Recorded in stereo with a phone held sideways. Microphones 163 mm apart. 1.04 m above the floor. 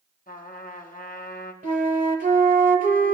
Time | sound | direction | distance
0.3 | a trumpet | 55° left (ahead or behind) | 1.1 m
1.6 | a flute | 55° right (ahead or behind) | 1.3 m